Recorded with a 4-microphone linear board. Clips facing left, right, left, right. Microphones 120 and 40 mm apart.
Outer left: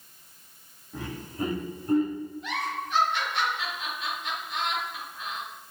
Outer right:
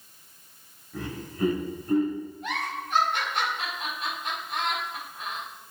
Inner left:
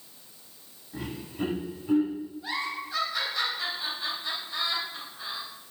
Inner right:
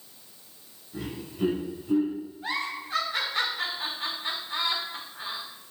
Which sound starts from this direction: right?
A giggle, at 2.4 s.